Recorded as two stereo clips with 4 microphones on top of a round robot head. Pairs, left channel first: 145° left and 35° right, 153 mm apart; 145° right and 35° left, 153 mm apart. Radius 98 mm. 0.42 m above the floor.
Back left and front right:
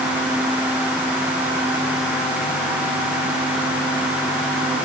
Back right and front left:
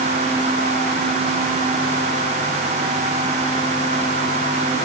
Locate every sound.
Only background noise.